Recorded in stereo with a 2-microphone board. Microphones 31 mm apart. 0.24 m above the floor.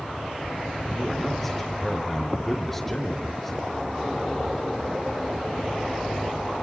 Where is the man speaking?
5° left (ahead or behind), 3.5 m.